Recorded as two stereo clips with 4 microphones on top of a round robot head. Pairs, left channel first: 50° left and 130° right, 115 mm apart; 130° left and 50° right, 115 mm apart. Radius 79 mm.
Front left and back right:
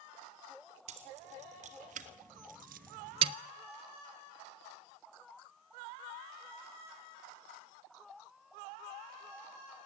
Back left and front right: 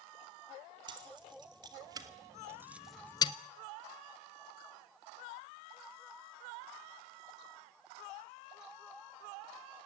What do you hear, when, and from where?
0.9 s keys jangling: 100° right, 2.5 m; by 3.3 s 170° left, 0.5 m